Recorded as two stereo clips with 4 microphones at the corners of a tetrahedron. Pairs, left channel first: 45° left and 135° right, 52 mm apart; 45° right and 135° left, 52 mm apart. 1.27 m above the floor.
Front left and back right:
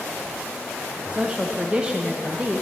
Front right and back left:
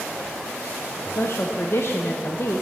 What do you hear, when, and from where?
1.1 s a woman speaking: 65° right, 0.5 m